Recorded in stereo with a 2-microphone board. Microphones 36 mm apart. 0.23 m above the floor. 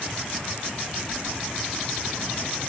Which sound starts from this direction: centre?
Keys jangling, at 1.1 s.